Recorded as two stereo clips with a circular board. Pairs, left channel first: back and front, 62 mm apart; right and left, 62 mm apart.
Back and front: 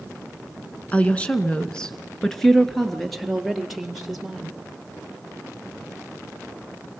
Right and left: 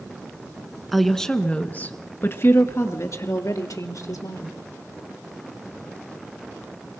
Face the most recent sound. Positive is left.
turn(degrees=-85)